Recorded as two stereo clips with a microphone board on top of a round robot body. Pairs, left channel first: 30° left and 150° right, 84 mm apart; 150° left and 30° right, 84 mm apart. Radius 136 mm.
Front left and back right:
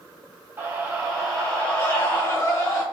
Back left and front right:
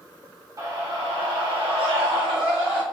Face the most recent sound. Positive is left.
turn(degrees=-20)